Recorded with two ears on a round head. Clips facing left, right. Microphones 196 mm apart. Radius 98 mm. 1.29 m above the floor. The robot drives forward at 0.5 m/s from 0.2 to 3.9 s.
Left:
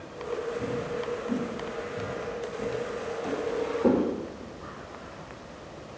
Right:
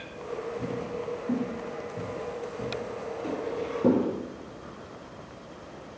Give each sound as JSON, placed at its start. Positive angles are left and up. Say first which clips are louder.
{"t": 0.6, "sound": "footsteps", "louder": "left 2 dB", "side_deg": -30, "distance_m": 1.7}